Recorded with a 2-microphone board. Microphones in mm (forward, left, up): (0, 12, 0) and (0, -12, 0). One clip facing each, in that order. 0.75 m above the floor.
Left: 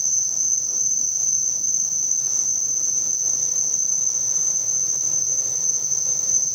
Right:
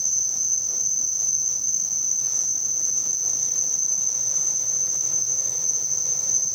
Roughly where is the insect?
Left.